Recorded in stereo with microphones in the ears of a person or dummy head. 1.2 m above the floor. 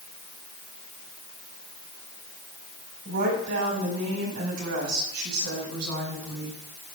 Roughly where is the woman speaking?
Right.